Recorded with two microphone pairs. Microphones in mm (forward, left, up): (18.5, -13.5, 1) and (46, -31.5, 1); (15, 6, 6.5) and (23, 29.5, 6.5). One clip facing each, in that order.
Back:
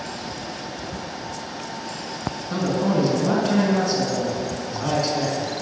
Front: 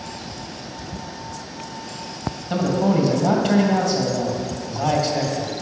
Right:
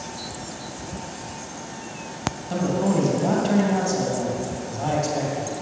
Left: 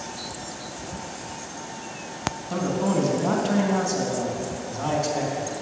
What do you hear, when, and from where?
2.5 s a man speaking: 25° right, 2.5 m